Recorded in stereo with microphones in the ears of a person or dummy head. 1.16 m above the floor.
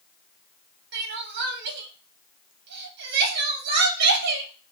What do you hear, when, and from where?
0.9 s crying: 60° right (ahead or behind), 1.0 m